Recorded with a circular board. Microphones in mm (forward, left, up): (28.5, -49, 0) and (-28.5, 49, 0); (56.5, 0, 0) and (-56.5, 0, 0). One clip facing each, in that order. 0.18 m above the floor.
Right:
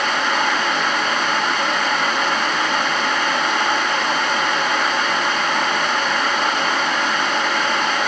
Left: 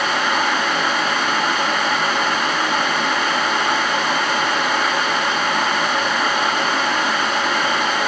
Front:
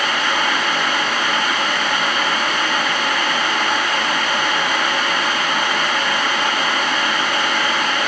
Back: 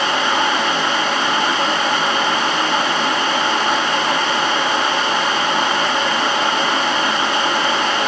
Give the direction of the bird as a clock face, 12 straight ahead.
I don't hear a bird.